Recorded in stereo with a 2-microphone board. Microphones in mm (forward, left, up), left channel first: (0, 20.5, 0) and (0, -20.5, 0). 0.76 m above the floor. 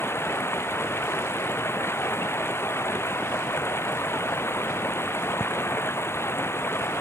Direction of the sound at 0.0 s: 85° left.